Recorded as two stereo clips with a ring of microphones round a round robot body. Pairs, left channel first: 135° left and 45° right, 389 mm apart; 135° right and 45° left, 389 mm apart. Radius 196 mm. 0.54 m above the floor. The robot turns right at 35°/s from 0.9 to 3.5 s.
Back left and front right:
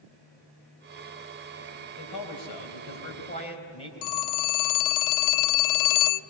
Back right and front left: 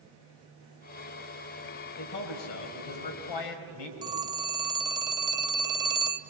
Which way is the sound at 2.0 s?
155° left.